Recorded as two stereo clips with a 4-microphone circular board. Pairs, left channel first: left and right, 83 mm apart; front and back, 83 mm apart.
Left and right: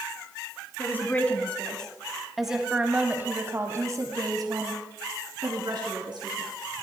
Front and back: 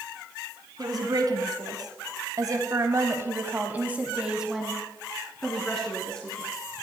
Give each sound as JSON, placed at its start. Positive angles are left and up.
{"t": 0.8, "sound": "a woman speaking", "azimuth_deg": 150, "distance_m": 2.5}